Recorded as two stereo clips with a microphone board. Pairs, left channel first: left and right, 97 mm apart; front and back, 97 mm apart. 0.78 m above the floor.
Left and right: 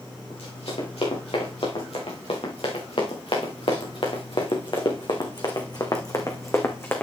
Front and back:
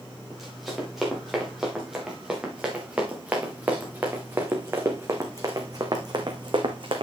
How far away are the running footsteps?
About 6 m.